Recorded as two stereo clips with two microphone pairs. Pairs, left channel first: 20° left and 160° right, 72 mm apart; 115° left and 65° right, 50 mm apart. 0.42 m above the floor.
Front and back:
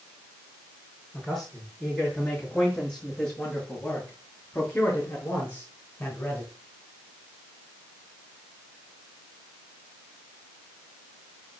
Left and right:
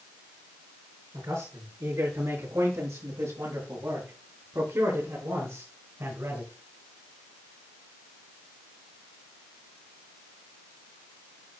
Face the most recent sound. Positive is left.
turn(degrees=-40)